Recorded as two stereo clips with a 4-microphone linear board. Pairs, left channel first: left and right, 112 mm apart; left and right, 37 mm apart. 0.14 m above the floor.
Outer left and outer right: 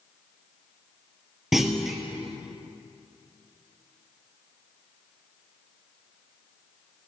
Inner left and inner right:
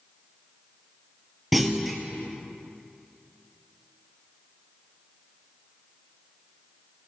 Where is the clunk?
Centre (ahead or behind), 0.6 m.